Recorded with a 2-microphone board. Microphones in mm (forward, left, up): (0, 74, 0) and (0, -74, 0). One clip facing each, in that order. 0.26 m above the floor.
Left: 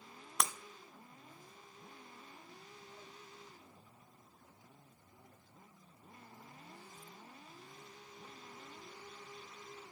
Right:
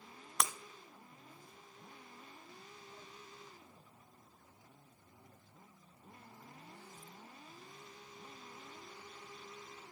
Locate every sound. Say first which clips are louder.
0.4 s breaking glass: even; centre (ahead or behind), 1.0 m